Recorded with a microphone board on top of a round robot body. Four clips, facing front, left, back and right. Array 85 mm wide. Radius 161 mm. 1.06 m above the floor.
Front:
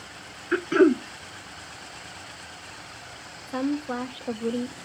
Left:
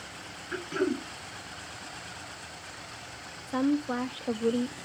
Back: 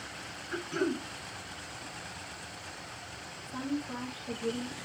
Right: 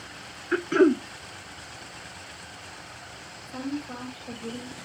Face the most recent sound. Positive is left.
turn(degrees=45)